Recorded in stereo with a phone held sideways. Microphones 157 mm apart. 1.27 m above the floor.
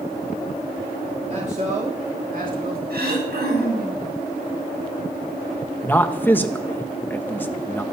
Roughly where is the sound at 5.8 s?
Centre.